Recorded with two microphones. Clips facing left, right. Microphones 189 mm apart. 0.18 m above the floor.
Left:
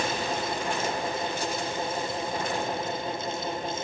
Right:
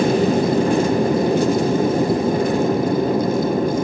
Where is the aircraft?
60° right (ahead or behind); by 3.8 s 75° right (ahead or behind).